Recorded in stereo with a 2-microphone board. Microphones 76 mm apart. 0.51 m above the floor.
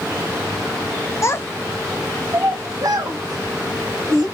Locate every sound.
1.2 s a child speaking: 40° left (ahead or behind), 0.6 m; by 4.2 s 75° right (ahead or behind), 1.5 m